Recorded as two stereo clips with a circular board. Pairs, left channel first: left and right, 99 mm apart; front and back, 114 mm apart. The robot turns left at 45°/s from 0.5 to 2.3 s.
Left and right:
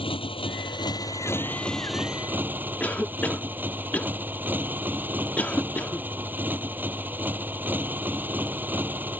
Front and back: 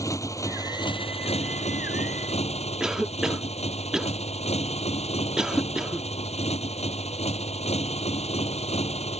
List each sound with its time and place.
0.0 s a motorcycle: 60° left; by 9.2 s 20° right
2.8 s a cough: 110° left